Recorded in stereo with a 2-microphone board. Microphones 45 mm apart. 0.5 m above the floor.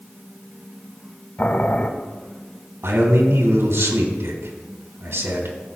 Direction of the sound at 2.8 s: 75° right (ahead or behind).